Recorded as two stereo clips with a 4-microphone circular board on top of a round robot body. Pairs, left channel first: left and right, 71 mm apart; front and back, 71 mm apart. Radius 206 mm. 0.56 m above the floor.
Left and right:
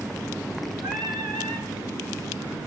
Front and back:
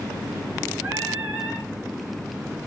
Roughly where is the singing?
Right.